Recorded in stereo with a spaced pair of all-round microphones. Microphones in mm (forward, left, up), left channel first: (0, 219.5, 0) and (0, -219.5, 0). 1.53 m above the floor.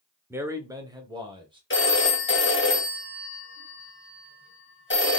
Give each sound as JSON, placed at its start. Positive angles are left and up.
{"t": 0.3, "sound": "a man speaking", "side_deg": -5, "distance_m": 0.7}
{"t": 1.7, "sound": "a phone ringing", "side_deg": 25, "distance_m": 1.2}